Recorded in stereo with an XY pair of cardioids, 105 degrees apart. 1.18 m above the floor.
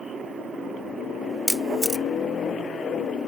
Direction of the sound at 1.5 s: Straight ahead.